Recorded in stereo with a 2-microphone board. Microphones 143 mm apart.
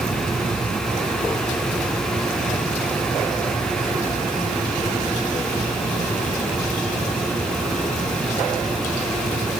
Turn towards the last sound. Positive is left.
No sound to turn to.